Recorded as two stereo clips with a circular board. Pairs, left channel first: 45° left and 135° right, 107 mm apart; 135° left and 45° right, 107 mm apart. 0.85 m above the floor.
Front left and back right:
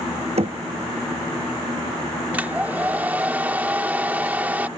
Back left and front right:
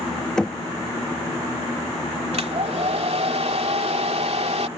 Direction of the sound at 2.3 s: 60° right.